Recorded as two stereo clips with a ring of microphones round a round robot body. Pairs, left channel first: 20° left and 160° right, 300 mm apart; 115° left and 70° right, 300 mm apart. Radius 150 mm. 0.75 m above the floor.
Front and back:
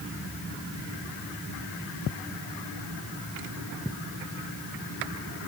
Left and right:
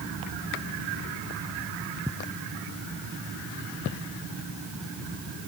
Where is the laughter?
I don't hear laughter.